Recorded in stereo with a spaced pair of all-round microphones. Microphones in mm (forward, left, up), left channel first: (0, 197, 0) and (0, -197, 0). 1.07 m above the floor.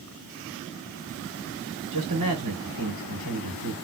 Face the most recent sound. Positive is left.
turn(degrees=-50)  # may be behind; listen again after turning